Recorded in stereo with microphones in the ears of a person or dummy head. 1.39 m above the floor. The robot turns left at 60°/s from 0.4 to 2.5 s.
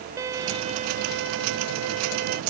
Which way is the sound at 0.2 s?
20° right.